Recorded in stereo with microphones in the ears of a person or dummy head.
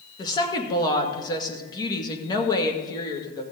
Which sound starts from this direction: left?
A woman speaking, at 0.2 s.